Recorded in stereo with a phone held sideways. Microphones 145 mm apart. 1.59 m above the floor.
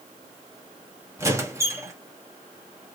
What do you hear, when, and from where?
1.2 s a squeak: 20° right (ahead or behind), 1.4 m